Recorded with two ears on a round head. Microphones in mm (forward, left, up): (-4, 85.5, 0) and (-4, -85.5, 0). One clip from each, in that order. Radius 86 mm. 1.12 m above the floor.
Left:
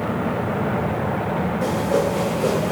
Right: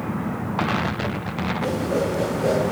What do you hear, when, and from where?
1.6 s a whoosh: 45° left (ahead or behind), 3 m